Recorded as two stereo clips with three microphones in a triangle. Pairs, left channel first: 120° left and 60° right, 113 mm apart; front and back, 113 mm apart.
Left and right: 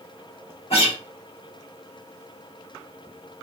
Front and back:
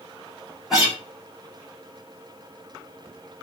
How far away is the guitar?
About 7.5 m.